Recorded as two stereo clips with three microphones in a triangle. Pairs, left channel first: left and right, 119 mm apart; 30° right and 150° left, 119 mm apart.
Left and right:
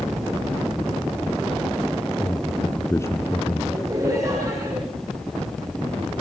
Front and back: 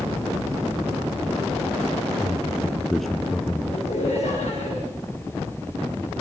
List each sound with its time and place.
2.2 s a man speaking: 55° left, 1.3 m
3.7 s laughter: 30° right, 6.5 m